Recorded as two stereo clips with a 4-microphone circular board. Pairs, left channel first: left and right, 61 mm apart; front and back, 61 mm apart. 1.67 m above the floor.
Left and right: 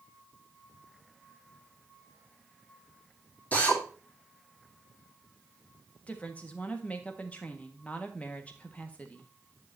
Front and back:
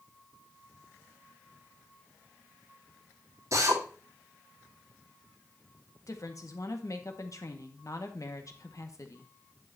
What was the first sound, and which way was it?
A drill, 155° left.